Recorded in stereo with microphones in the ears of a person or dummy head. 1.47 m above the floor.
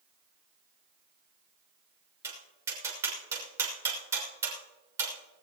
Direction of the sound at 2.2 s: 15° right (ahead or behind).